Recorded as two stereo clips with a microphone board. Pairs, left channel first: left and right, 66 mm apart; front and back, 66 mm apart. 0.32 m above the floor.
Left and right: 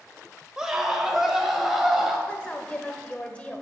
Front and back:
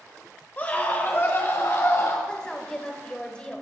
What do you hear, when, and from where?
0.6 s a scream: 20° right, 1.4 m; by 2.2 s 5° right, 1.9 m
2.3 s a woman speaking: 45° left, 1.0 m